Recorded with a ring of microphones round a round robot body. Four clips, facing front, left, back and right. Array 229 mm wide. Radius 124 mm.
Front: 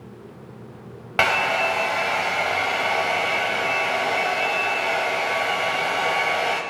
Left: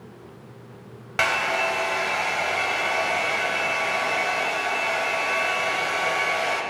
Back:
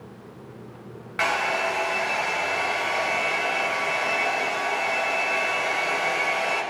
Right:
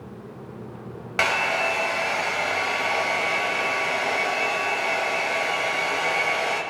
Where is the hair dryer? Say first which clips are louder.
Even, front 3 dB; 10° right, 1.6 m.